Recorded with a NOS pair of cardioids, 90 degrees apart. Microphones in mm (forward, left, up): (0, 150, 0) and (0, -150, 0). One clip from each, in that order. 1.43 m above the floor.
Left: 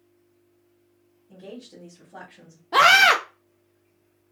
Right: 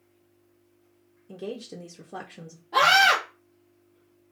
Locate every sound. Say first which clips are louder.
1.3 s a woman speaking: right 6 dB; 60° right, 0.7 m
2.7 s a scream: left 3 dB; 40° left, 0.5 m